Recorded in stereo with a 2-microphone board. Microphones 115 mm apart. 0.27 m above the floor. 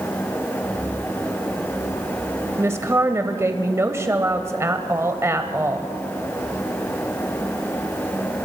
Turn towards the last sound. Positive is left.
turn(degrees=-25)  # may be behind; listen again after turning